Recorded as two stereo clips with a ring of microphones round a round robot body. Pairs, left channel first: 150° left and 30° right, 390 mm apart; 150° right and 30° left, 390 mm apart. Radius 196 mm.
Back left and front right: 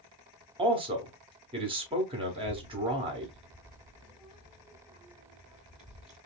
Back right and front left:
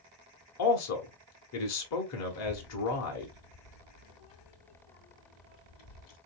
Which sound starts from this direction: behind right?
A child speaking, at 2.3 s.